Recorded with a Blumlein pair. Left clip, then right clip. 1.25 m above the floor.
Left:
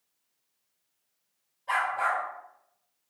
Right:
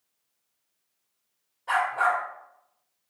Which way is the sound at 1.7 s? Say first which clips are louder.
Right 3 dB; 65° right.